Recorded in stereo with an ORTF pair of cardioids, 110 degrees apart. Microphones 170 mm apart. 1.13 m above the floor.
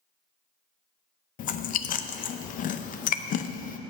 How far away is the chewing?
About 0.7 m.